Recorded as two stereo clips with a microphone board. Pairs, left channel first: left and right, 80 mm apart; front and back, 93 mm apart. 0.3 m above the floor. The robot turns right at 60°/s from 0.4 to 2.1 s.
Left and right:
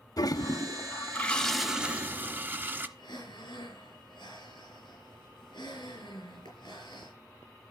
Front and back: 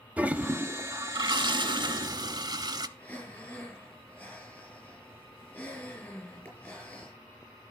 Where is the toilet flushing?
110° left, 0.6 m; by 2.9 s 150° right, 0.6 m.